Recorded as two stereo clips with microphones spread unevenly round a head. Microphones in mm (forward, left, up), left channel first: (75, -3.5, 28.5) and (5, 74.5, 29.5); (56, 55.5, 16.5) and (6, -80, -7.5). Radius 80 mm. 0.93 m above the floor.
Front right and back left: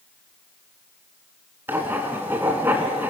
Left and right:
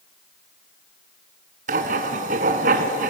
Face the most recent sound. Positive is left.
turn(degrees=-150)